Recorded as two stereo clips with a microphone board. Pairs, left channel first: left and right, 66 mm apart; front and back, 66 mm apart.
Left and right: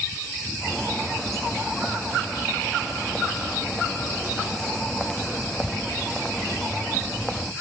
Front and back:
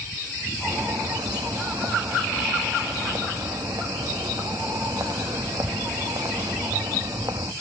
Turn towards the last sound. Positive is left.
turn(degrees=175)